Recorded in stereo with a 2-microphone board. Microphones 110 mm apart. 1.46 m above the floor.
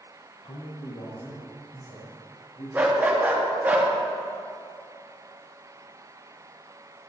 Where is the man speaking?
55° left (ahead or behind), 0.5 m; by 2.6 s 65° left (ahead or behind), 3 m.